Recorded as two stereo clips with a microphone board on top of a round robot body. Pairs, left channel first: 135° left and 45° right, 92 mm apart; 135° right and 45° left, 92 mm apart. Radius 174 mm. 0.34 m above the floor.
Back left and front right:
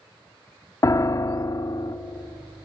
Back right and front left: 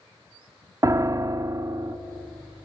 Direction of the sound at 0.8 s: 90° left.